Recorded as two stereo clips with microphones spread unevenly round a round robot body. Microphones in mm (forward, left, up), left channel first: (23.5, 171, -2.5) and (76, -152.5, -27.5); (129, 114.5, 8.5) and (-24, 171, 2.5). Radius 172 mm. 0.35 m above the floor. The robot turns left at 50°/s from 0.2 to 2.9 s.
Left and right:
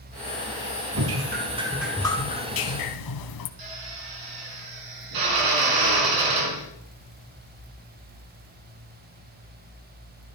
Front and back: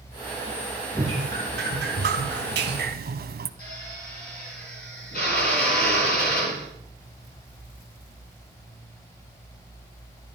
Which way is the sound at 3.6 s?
75° right.